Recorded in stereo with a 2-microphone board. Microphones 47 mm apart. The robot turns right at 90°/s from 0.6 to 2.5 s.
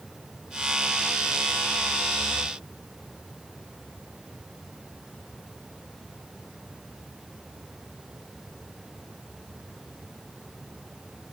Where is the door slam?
I don't hear a door slam.